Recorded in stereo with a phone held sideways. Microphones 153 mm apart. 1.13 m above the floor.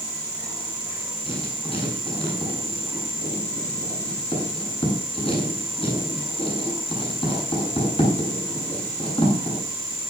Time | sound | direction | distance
1.3 | writing | 35° left (ahead or behind) | 10 m